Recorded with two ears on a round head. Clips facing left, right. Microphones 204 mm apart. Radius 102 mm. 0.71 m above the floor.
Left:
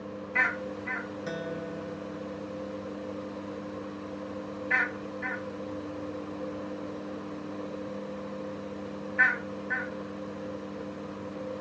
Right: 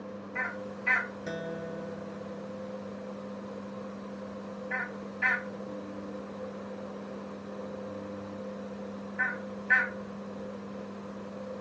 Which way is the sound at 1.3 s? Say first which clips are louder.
Left 1 dB; centre (ahead or behind).